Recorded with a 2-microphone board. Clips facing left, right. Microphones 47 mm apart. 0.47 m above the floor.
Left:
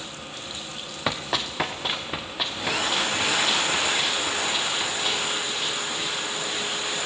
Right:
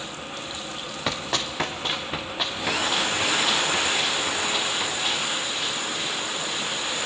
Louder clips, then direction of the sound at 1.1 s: Left 1 dB; 10° left (ahead or behind).